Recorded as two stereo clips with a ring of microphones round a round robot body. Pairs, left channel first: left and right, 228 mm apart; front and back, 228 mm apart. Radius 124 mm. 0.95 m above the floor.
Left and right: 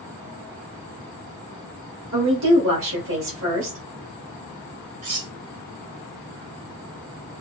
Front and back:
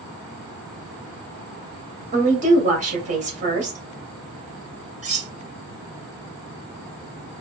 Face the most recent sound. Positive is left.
turn(degrees=-120)